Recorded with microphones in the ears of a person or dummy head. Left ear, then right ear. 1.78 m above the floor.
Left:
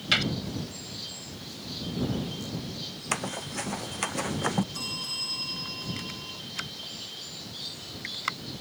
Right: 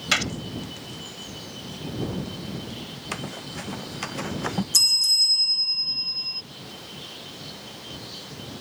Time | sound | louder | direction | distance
0.1 | a gunshot | right 2 dB | 30° right (ahead or behind) | ?
3.1 | running footsteps | left 3 dB | 25° left (ahead or behind) | ?
4.7 | a bell | right 14 dB | 75° right (ahead or behind) | ?